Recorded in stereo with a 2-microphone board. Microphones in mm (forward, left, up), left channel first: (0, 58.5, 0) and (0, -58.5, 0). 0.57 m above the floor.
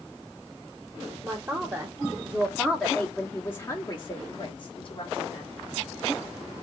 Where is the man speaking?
25° right (ahead or behind), 1.6 m; by 5.5 s 50° left (ahead or behind), 1.6 m.